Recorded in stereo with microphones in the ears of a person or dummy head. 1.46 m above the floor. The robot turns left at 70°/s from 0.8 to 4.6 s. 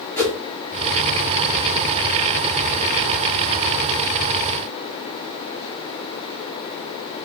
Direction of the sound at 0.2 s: 15° left (ahead or behind).